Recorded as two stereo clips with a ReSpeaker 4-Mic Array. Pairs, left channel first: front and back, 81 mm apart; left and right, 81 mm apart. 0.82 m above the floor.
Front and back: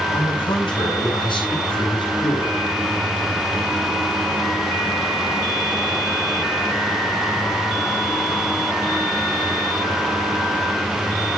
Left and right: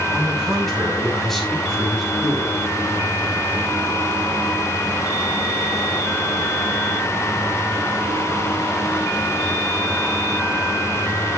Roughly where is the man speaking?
Ahead.